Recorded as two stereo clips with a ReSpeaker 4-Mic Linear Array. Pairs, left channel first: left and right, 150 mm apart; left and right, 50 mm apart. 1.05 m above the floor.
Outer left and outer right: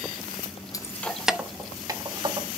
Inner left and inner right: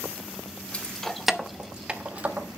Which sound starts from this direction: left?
Keys jangling, at 0.7 s.